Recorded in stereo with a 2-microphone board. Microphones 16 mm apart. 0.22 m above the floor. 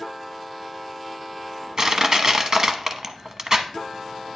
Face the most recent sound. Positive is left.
turn(degrees=-35)  # may be behind; listen again after turning